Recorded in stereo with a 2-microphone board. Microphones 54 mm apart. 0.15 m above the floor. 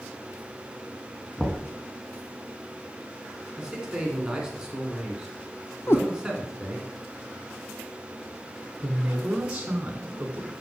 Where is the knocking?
10° left (ahead or behind), 1.1 m.